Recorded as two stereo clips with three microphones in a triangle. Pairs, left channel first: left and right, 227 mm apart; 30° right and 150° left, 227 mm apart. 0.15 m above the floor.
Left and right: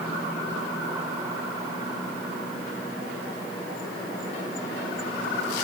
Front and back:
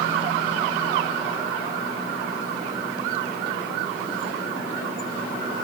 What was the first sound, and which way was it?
Only background noise.